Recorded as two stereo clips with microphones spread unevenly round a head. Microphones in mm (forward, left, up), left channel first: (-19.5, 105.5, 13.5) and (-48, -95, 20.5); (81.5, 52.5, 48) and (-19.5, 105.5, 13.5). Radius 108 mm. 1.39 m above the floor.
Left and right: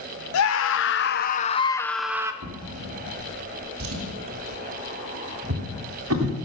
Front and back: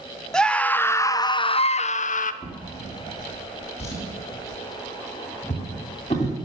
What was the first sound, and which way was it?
A scream, 60° left.